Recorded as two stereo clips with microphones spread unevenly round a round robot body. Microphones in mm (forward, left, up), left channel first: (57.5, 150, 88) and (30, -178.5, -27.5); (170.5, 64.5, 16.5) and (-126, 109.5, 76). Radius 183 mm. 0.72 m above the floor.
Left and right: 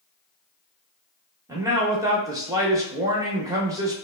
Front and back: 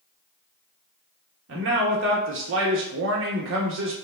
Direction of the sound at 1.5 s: 145° right.